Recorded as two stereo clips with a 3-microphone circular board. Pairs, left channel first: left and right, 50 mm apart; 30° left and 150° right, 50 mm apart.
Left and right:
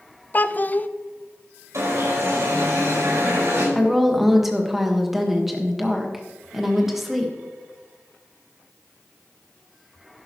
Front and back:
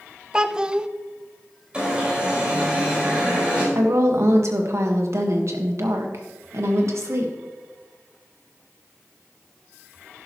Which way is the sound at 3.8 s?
175° right.